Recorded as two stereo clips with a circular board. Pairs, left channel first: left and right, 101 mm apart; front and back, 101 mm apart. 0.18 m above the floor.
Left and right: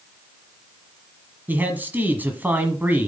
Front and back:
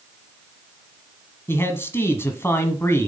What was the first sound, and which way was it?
A man speaking, 40° right.